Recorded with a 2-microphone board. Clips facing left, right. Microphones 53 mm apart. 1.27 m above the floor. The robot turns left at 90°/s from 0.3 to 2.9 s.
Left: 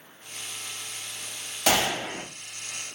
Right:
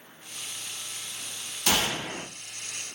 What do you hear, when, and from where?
1.7 s a gunshot: 90° left, 2 m; by 2.2 s 40° left, 2 m